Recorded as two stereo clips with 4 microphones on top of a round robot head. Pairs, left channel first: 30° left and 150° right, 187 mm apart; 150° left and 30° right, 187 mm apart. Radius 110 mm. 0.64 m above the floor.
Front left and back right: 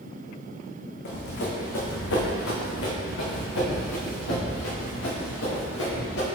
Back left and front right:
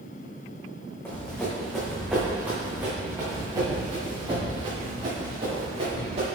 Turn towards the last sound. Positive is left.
turn(degrees=30)